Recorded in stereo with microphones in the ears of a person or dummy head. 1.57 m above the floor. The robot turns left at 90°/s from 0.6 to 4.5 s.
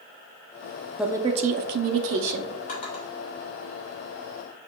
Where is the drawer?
45° left (ahead or behind), 1.3 m; by 3.0 s 30° left (ahead or behind), 1.3 m.